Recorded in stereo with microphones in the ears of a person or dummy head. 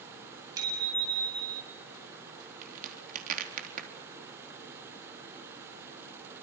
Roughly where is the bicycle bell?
Centre.